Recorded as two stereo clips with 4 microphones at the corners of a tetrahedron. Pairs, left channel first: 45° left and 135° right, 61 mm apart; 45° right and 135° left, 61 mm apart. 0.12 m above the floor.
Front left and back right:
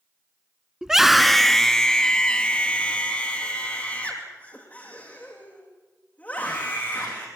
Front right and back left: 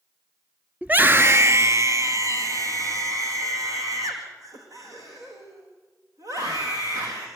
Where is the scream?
160° left, 1.1 m; by 7.2 s 110° left, 8 m.